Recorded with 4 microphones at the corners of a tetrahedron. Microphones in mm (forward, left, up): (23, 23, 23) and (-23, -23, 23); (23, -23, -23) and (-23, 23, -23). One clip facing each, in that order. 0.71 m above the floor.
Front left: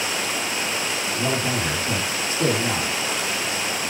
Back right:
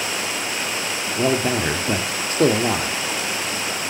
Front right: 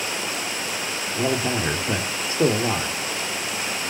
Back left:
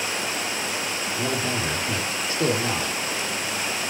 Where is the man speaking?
105° right, 1.9 m.